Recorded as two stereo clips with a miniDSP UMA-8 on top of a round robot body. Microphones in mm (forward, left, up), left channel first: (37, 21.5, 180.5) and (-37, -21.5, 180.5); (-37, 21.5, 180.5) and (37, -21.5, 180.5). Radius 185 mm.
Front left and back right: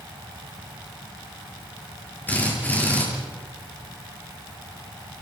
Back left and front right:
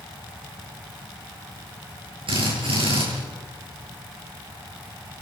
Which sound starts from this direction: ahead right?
A drill, at 2.3 s.